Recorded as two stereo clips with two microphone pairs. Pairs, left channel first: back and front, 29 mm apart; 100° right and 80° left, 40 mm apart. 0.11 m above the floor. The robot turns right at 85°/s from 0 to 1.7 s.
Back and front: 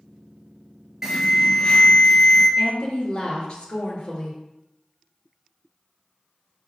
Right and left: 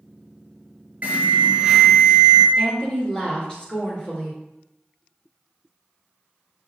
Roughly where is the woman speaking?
Behind right.